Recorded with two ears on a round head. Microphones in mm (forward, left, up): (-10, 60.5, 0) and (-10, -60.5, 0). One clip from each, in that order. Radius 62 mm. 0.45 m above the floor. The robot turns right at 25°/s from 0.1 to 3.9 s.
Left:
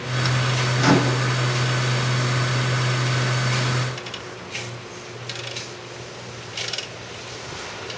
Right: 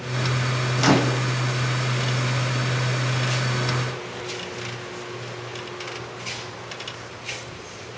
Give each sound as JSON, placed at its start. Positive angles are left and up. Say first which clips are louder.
{"t": 0.8, "sound": "a microwave", "louder": "even", "side_deg": -25, "distance_m": 0.8}